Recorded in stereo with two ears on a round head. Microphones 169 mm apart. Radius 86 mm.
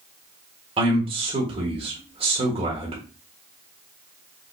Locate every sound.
0.8 s a man speaking: 30° right (ahead or behind), 1.5 m